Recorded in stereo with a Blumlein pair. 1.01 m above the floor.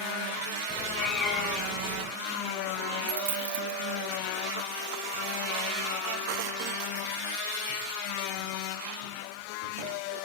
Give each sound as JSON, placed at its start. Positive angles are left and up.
{"t": 0.7, "sound": "a cat meowing", "azimuth_deg": 25, "distance_m": 2.0}
{"t": 3.1, "sound": "a dropped coin", "azimuth_deg": -55, "distance_m": 1.2}